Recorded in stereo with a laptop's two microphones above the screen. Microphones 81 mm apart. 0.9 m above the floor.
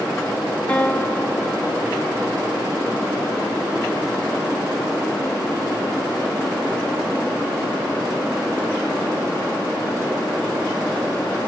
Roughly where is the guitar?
Centre.